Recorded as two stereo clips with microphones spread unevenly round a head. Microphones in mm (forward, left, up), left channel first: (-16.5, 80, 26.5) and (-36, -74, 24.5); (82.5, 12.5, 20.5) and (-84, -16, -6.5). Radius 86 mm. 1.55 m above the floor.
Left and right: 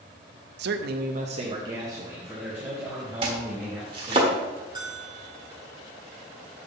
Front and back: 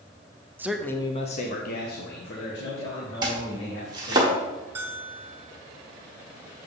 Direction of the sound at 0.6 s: 95° right.